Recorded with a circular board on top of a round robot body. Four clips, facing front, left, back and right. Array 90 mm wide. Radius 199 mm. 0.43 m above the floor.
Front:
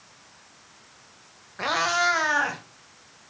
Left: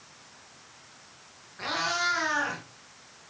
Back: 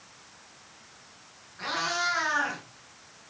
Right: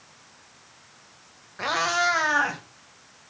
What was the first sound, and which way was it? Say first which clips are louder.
A cat meowing: right 6 dB, front 6 dB; 35° right.